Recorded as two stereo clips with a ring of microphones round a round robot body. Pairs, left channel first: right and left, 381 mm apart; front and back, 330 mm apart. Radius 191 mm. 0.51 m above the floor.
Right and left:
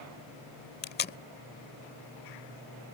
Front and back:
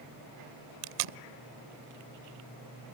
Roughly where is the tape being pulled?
Behind right.